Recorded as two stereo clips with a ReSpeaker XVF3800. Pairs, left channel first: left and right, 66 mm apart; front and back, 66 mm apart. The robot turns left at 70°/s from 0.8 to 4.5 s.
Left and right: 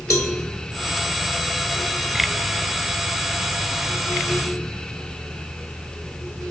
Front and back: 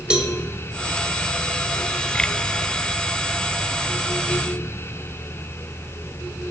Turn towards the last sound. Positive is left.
turn(degrees=-150)